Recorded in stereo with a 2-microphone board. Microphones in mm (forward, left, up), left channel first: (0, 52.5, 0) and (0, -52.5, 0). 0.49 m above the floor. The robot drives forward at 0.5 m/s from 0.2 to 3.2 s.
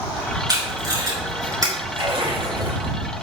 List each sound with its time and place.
0.5 s tape being pulled: 40° right (ahead or behind), 4.5 m; by 1.7 s 35° right (ahead or behind), 5 m
1.9 s a splash: 65° right (ahead or behind), 4.5 m; by 3.0 s 60° right (ahead or behind), 5 m